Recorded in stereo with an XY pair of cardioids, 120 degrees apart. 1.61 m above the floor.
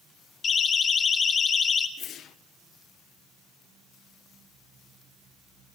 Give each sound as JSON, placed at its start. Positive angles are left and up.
{"t": 0.4, "sound": "a siren", "azimuth_deg": 40, "distance_m": 2.5}
{"t": 2.0, "sound": "a whoosh", "azimuth_deg": 60, "distance_m": 0.7}